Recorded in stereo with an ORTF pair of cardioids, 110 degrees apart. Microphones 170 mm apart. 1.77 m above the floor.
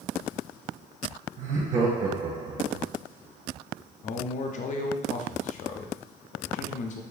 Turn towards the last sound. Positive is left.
turn(degrees=45)